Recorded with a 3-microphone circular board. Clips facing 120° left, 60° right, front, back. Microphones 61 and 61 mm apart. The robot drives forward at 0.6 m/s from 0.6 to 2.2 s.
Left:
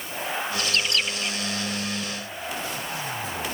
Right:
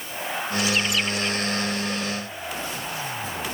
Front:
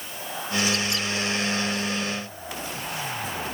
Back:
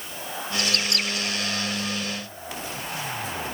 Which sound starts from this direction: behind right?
A bird, at 0.6 s.